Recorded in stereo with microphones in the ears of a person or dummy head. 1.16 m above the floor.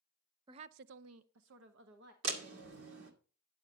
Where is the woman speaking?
25° right (ahead or behind), 0.5 m; by 2.1 s 60° right (ahead or behind), 1.3 m.